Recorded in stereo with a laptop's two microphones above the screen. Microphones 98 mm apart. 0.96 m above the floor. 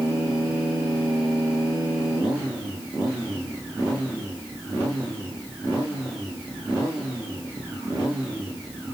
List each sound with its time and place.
Only background noise.